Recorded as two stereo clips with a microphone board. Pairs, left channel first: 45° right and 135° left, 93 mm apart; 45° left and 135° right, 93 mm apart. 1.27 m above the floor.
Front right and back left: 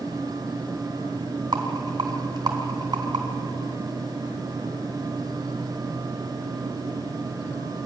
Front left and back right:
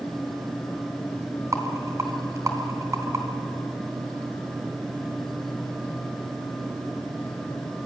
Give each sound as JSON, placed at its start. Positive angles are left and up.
{"t": 1.5, "sound": "a rattle", "azimuth_deg": 170, "distance_m": 3.5}